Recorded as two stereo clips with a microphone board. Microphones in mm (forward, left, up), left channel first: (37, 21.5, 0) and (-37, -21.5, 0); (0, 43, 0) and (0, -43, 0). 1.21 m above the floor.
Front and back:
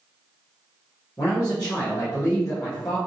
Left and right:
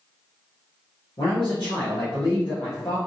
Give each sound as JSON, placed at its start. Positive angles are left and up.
{"t": 1.2, "sound": "a man speaking", "azimuth_deg": 75, "distance_m": 1.0}